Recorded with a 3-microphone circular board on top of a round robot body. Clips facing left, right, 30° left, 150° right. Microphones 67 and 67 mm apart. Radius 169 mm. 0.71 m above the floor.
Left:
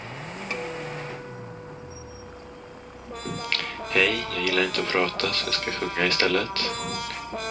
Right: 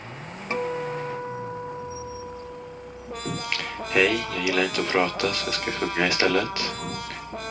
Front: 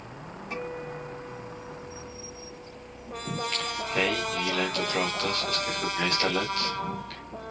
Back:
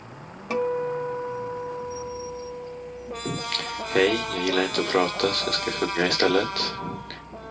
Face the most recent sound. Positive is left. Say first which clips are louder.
# even, even
turn(degrees=-165)